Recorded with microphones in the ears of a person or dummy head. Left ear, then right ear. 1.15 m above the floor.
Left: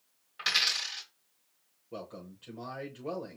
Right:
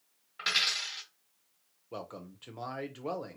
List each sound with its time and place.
0.4 s a dropped coin: centre (ahead or behind), 0.9 m
1.9 s a man speaking: 30° right (ahead or behind), 0.7 m